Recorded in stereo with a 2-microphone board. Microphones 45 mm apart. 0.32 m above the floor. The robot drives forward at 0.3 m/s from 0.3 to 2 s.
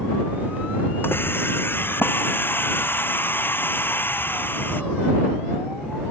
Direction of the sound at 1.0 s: 55° left (ahead or behind).